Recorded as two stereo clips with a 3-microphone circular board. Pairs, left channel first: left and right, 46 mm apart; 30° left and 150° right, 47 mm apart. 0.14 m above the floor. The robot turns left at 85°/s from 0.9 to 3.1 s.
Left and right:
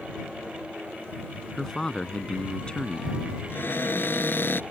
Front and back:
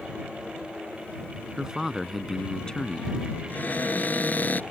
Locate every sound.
1.6 s a man speaking: 165° left; by 3.4 s 35° left
3.5 s a cupboard door: 70° left